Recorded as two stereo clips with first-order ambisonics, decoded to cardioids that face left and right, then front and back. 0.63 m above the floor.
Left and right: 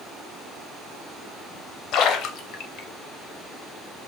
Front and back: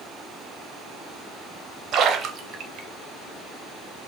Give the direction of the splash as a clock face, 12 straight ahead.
8 o'clock.